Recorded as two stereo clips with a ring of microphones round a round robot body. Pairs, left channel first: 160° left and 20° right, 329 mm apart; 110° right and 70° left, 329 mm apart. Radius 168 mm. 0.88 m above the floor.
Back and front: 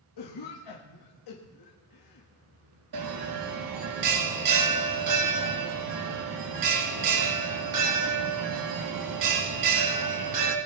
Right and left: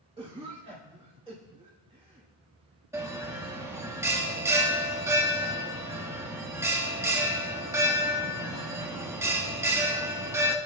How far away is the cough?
About 1.4 m.